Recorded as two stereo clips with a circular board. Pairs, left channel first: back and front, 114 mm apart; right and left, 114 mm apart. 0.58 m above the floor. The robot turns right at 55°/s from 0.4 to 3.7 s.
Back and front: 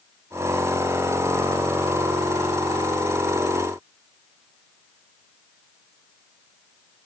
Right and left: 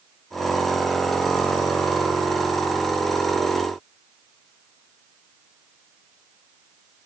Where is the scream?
I don't hear a scream.